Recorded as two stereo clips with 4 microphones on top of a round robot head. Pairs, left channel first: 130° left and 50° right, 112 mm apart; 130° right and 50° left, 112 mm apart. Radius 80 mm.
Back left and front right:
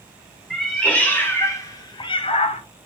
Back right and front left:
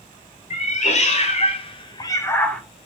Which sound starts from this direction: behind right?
A cat meowing, at 0.5 s.